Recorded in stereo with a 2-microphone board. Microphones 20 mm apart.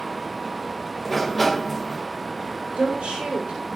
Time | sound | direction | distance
1.1 | a sliding door | 15° left (ahead or behind) | 0.6 m
2.8 | a woman speaking | 75° right (ahead or behind) | 5.5 m